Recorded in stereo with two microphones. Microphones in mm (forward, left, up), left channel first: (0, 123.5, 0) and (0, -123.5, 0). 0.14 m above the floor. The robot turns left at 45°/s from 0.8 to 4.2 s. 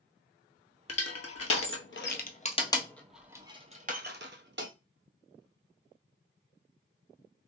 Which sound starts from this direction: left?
Crushing, at 0.9 s.